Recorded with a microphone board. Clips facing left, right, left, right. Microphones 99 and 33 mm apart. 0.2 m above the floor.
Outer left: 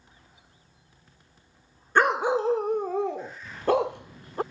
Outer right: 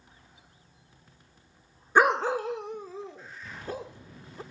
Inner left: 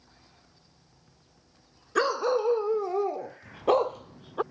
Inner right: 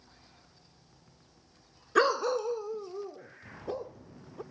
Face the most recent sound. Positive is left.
turn(degrees=75)  # may be behind; listen again after turning